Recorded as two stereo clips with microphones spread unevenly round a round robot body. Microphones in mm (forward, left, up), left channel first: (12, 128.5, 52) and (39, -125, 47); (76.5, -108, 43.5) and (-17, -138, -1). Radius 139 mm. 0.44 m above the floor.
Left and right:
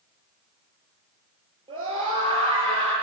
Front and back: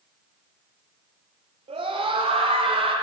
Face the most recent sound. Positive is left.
turn(degrees=-155)